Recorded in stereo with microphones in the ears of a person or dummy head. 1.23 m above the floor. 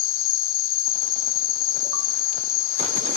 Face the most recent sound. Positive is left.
turn(degrees=45)  # may be behind; listen again after turning